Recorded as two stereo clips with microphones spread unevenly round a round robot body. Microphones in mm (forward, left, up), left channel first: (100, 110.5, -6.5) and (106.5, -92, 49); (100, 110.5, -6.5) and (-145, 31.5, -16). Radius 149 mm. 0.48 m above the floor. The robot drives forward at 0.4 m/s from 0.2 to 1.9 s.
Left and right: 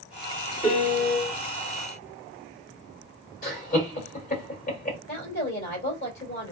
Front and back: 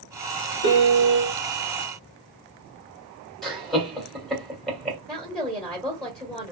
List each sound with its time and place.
0.6 s a piano: 30° left, 1.0 m; by 1.3 s 40° left, 0.8 m
3.4 s laughter: 110° left, 1.9 m
5.1 s a woman speaking: 110° left, 1.8 m